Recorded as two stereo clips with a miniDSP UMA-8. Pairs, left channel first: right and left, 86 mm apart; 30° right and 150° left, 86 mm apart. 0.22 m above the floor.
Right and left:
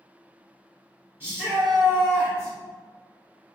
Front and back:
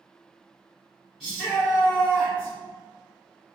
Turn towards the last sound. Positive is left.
turn(degrees=70)